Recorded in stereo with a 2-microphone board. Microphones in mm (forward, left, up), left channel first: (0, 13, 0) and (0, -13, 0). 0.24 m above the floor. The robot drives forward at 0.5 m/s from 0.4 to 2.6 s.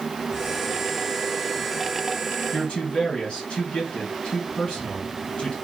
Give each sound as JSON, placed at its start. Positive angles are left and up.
{"t": 2.5, "sound": "a man speaking", "side_deg": 45, "distance_m": 2.5}